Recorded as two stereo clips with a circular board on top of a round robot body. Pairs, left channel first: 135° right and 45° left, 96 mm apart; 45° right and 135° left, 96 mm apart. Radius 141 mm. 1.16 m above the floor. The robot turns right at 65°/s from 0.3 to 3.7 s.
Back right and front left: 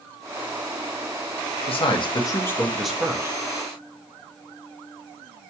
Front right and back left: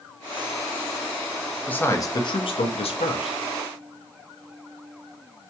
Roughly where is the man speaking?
Behind right.